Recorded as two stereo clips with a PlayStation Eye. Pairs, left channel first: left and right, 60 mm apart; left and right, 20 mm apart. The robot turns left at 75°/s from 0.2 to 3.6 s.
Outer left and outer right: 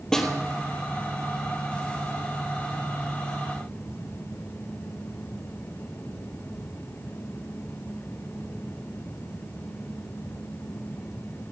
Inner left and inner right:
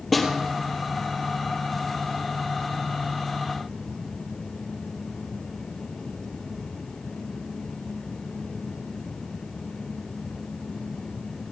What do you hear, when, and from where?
0.1 s a snare drum: 10° left (ahead or behind), 4 m; by 0.3 s centre (ahead or behind), 4 m